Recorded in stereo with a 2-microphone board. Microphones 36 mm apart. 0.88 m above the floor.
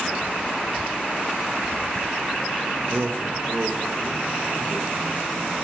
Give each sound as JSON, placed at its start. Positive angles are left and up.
{"t": 2.8, "sound": "a man speaking", "side_deg": -35, "distance_m": 0.9}